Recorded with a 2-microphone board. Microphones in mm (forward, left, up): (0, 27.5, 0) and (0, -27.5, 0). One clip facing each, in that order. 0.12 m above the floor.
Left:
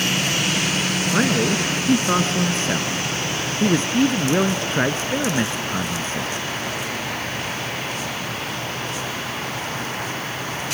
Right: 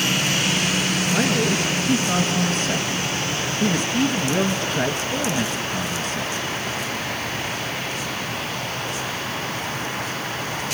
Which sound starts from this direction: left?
A man speaking, at 1.1 s.